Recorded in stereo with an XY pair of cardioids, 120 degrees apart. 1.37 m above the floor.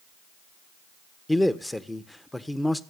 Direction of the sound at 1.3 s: 10° left.